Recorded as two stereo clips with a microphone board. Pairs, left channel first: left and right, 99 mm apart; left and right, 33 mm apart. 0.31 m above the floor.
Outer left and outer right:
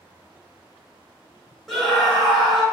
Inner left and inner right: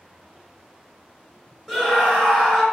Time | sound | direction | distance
1.7 | a scream | centre (ahead or behind) | 1.5 m